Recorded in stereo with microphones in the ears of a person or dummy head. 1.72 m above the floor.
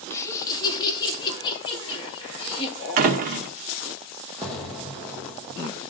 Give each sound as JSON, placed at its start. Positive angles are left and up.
{"t": 0.1, "sound": "laughter", "side_deg": 15, "distance_m": 2.0}
{"t": 3.0, "sound": "a door slam", "side_deg": -45, "distance_m": 0.8}
{"t": 4.4, "sound": "an explosion", "side_deg": 0, "distance_m": 1.8}